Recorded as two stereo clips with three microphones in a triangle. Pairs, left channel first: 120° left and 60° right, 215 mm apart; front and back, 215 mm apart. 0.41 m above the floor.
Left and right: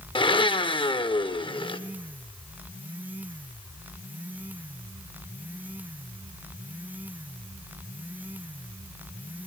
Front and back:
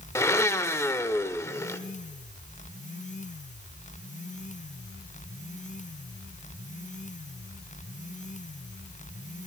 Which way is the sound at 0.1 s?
65° left.